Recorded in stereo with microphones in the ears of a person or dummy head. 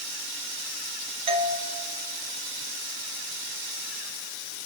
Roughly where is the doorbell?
Right.